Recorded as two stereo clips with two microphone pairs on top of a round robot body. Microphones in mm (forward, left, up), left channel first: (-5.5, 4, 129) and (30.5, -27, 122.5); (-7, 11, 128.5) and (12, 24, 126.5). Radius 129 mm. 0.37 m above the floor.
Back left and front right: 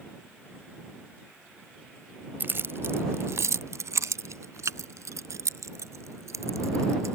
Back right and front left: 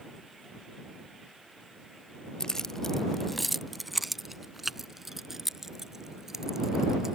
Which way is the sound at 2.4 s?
80° right.